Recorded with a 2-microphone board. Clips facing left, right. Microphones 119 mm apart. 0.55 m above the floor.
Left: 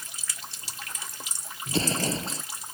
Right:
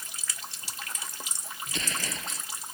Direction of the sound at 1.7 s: 35° left (ahead or behind).